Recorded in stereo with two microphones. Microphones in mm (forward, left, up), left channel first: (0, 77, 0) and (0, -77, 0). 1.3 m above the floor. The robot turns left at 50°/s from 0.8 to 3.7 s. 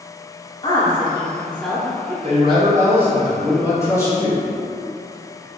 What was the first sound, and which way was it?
A woman speaking, 35° left (ahead or behind).